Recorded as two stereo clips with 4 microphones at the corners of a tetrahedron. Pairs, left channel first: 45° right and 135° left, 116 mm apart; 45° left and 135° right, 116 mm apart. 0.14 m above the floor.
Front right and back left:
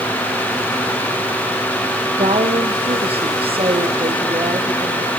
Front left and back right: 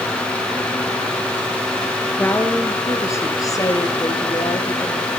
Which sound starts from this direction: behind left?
A woman speaking, at 2.2 s.